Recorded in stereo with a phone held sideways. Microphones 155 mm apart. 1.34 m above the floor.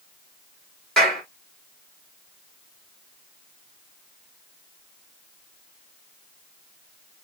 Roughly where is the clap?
Centre.